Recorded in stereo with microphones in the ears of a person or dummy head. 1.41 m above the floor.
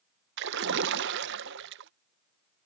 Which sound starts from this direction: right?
A splash, at 0.4 s.